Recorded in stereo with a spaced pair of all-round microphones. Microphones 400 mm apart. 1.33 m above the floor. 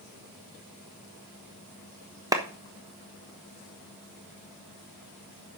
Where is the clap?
10° right (ahead or behind), 1.2 m.